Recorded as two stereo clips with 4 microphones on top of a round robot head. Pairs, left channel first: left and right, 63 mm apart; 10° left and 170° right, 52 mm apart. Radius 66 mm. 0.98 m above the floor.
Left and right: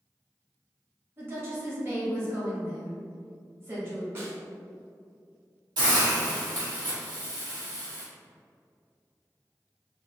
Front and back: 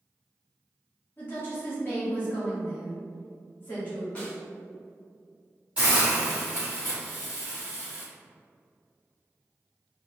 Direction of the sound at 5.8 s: 95° right.